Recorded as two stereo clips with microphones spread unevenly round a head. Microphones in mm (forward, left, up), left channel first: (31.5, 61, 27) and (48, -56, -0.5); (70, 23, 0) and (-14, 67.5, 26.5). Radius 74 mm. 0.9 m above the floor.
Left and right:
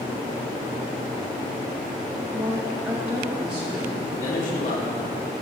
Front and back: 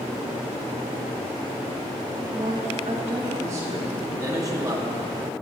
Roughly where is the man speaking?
Left.